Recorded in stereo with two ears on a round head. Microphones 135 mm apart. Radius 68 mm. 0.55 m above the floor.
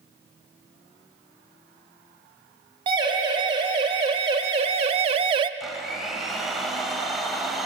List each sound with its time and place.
2.9 s a siren: 30° right (ahead or behind), 2.5 m
5.6 s a blender: centre (ahead or behind), 2.5 m